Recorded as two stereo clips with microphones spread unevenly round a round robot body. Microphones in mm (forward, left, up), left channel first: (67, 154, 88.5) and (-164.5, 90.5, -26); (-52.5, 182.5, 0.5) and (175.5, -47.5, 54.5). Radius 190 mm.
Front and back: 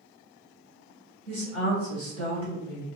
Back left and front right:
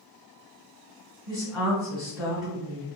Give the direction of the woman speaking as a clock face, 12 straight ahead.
5 o'clock.